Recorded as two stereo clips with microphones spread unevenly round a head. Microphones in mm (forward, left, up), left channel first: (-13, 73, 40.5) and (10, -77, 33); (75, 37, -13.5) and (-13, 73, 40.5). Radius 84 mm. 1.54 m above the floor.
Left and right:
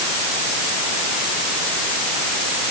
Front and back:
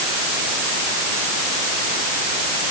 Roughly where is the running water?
No running water in this recording.